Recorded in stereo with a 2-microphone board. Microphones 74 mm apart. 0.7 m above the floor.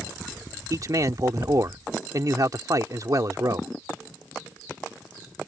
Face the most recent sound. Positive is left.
turn(degrees=-50)  # may be behind; listen again after turning